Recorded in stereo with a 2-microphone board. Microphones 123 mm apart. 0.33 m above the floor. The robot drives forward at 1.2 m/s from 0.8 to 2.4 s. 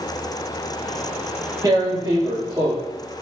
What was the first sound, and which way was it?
Tearing paper, 30° right (ahead or behind).